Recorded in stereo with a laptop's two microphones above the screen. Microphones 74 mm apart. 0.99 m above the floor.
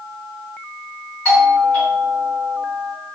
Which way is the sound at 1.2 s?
25° left (ahead or behind).